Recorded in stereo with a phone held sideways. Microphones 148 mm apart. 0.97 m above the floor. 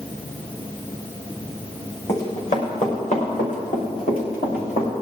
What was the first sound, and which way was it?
Running footsteps, 45° left (ahead or behind).